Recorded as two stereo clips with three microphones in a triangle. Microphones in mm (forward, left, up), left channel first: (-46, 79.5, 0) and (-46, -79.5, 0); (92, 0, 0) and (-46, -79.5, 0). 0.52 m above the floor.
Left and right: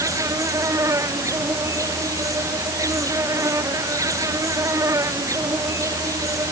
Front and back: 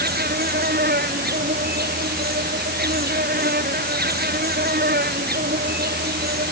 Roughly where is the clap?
No clap in this recording.